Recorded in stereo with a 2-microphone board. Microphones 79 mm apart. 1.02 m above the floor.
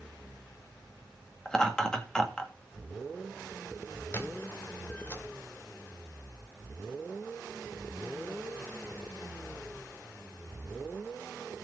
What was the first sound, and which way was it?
Laughter, 10° left (ahead or behind).